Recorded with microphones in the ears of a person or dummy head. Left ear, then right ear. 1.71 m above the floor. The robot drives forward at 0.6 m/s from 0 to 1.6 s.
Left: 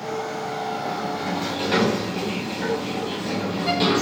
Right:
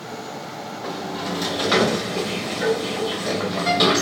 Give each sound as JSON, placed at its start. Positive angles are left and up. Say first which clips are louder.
{"t": 0.8, "sound": "a sliding door", "louder": "left 2 dB", "side_deg": -30, "distance_m": 1.7}